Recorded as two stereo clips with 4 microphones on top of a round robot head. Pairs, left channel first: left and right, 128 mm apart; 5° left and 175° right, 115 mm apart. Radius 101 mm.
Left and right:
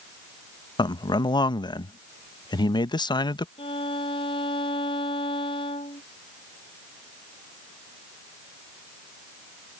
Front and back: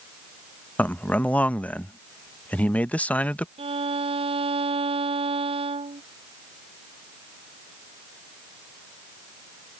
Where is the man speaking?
75° left.